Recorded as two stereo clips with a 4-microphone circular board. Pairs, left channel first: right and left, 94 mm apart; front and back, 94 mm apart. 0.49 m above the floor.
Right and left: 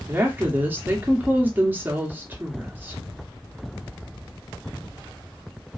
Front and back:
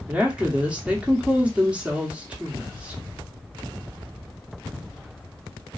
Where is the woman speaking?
120° left, 0.7 m.